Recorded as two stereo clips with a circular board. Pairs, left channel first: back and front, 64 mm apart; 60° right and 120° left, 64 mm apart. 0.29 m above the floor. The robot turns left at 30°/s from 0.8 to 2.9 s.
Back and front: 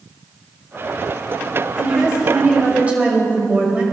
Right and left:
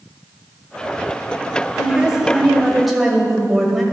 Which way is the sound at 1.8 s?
65° left.